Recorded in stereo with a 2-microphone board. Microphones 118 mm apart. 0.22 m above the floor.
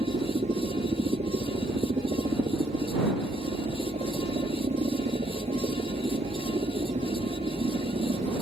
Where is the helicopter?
70° right (ahead or behind).